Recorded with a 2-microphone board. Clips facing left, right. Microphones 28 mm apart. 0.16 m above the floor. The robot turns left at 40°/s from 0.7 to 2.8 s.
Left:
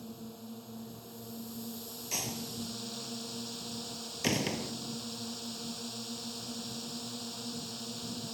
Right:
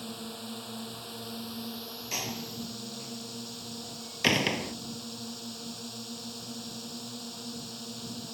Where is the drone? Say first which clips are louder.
Right 6 dB; 95° right; by 8.3 s 175° right.